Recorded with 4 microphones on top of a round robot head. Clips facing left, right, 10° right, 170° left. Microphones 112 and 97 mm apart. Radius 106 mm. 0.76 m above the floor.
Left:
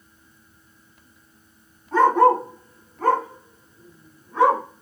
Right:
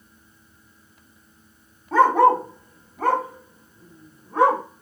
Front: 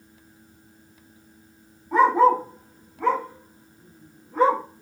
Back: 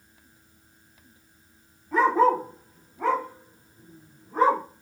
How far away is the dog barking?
About 1.4 m.